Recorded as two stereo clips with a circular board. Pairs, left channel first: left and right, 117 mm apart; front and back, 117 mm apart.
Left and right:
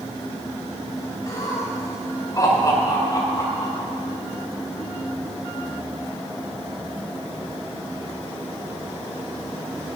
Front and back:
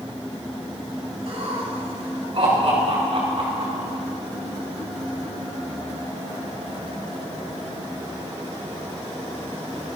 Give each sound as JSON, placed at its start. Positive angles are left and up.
{"t": 1.3, "sound": "laughter", "azimuth_deg": 150, "distance_m": 6.0}